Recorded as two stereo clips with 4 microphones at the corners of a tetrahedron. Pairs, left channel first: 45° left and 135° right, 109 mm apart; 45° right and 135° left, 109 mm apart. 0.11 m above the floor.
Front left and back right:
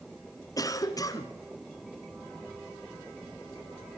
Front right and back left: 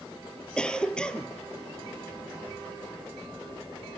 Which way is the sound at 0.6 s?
30° left.